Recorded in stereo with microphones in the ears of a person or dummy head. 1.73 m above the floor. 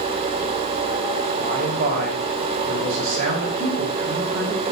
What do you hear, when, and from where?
1.4 s a man speaking: 50° right (ahead or behind), 4 m